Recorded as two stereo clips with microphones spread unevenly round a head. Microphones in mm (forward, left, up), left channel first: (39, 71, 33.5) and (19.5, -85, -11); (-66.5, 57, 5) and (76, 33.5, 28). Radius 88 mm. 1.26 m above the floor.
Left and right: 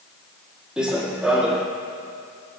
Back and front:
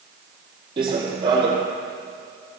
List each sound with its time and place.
0.8 s running footsteps: 5° left, 1.6 m